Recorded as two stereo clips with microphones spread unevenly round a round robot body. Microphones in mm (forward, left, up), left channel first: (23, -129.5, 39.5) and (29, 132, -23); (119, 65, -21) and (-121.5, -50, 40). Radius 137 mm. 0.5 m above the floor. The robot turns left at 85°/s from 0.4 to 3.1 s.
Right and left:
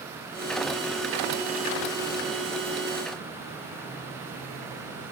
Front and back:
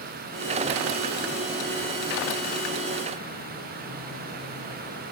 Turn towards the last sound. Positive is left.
No sound to turn to.